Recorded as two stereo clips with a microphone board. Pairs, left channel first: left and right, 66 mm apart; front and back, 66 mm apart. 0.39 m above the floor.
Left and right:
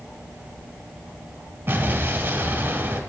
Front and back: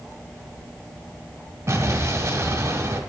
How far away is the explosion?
About 1.3 m.